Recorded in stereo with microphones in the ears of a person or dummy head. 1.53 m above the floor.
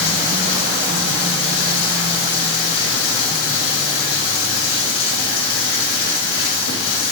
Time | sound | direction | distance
0.0 | running water | 85° left | 1.3 m